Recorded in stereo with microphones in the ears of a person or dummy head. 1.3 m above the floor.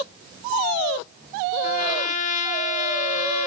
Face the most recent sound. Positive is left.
turn(degrees=45)  # may be behind; listen again after turning